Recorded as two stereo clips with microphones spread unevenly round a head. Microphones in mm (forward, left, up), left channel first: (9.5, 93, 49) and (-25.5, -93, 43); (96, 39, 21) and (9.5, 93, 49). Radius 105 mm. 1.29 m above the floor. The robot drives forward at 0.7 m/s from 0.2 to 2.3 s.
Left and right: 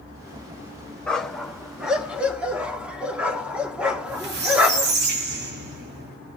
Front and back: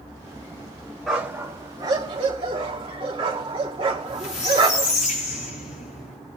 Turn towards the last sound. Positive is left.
turn(degrees=-60)